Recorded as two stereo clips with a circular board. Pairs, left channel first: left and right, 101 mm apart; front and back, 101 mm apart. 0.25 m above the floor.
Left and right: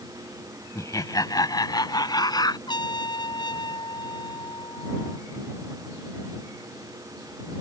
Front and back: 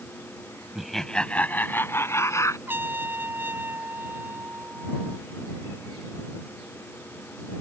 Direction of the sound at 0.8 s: 95° left.